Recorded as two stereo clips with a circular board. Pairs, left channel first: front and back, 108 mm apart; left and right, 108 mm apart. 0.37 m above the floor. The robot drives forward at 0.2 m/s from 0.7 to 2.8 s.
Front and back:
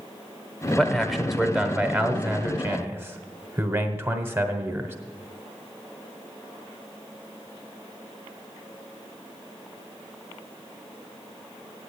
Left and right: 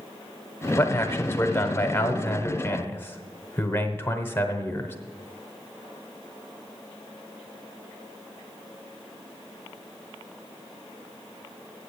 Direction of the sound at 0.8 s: 85° left.